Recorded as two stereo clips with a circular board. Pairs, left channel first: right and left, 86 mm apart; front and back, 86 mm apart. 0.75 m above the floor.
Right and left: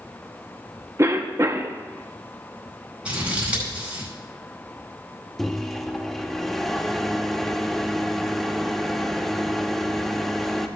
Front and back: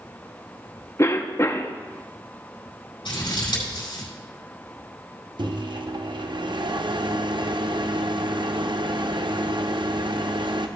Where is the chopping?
No chopping in this recording.